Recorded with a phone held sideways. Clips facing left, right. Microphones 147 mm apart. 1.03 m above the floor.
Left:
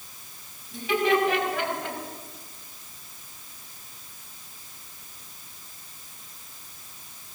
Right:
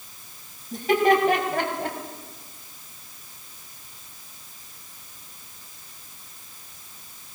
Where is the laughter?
50° right (ahead or behind), 6 m; by 2.0 s 45° right (ahead or behind), 5 m.